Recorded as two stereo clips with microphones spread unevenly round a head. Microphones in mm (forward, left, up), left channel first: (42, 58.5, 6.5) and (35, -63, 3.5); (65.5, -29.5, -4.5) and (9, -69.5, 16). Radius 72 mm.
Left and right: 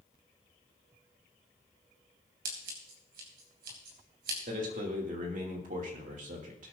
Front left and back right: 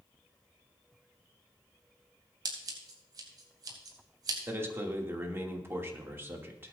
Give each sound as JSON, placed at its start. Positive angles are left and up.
{"t": 2.5, "sound": "scissors", "azimuth_deg": -125, "distance_m": 3.0}
{"t": 4.5, "sound": "a man speaking", "azimuth_deg": -85, "distance_m": 2.5}